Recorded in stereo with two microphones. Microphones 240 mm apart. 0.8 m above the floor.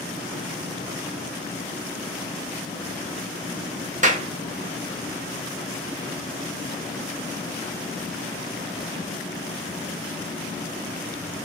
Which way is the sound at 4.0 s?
30° right (ahead or behind).